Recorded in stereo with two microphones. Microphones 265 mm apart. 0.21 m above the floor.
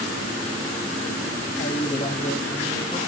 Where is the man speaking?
30° left (ahead or behind), 1.4 m.